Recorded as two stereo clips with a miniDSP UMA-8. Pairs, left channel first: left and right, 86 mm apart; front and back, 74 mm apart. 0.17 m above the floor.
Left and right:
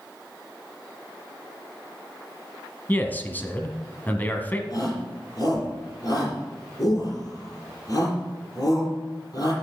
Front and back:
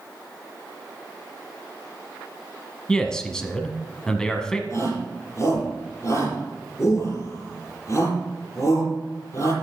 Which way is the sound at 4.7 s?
45° left.